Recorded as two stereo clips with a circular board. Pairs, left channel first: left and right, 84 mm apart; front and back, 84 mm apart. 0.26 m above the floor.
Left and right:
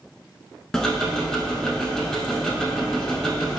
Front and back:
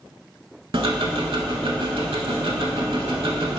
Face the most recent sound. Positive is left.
turn(degrees=175)